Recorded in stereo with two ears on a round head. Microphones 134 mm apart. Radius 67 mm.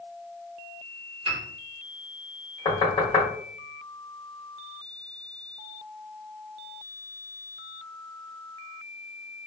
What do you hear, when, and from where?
1.2 s a piano: 40° right (ahead or behind), 1.4 m
2.6 s knocking: 30° left (ahead or behind), 1.0 m